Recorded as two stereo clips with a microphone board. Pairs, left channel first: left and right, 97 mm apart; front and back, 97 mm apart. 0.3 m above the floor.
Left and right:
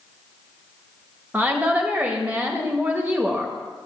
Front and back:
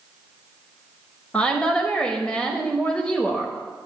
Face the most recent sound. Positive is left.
turn(degrees=-60)